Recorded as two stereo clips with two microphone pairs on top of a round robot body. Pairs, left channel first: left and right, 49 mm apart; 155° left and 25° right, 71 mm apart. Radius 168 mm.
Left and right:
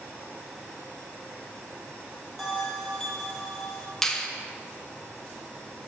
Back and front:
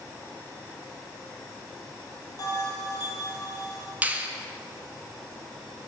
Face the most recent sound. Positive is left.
turn(degrees=5)